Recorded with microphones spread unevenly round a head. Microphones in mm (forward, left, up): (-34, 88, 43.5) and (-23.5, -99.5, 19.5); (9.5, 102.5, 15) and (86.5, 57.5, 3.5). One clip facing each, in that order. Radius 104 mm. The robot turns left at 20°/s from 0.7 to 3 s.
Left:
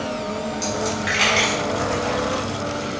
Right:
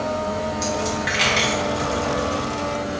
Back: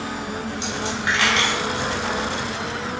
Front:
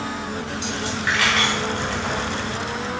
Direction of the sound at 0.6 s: Straight behind.